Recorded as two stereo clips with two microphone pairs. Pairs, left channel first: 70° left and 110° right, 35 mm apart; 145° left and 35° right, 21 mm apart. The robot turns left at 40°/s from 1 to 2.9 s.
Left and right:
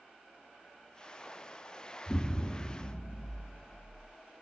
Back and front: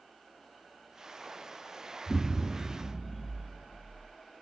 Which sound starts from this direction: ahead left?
An explosion, at 2.1 s.